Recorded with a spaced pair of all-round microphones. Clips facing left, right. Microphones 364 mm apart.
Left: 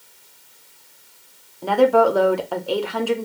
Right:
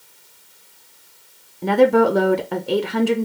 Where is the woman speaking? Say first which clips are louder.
Right 2 dB; 30° right (ahead or behind), 0.5 m.